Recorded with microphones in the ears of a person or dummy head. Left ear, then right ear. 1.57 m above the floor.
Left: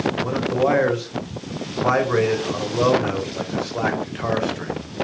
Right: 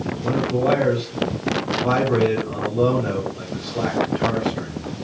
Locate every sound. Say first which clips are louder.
0.2 s a man speaking: right 3 dB; 45° left (ahead or behind), 1.0 m